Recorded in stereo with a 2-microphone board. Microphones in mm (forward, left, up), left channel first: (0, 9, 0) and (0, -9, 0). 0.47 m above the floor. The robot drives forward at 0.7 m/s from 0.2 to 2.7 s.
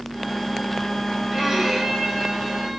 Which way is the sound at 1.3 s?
30° right (ahead or behind).